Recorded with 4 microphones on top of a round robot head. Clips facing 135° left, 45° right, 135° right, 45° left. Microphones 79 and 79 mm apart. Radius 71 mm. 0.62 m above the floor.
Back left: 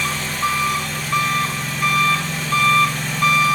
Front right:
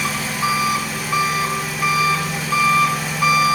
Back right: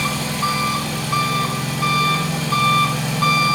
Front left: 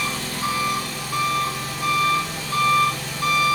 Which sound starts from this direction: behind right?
An engine running, at 0.0 s.